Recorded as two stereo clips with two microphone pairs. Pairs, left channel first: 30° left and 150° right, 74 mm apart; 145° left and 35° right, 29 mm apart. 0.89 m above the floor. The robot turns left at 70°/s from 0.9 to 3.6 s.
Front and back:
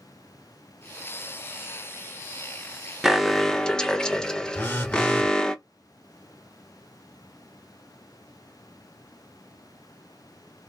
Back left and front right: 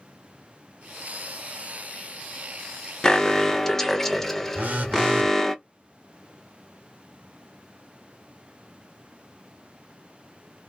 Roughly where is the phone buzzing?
Ahead right.